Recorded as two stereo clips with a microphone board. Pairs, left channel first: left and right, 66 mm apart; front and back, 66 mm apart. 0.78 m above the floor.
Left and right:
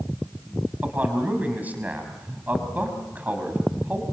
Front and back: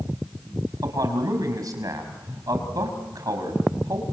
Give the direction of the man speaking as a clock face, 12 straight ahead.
5 o'clock.